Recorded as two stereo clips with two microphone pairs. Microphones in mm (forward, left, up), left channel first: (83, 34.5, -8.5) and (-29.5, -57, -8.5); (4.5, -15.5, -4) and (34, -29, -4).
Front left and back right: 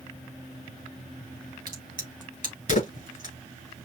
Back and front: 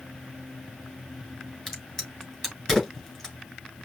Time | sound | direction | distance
1.7 | a crack | 60° left | 2.5 m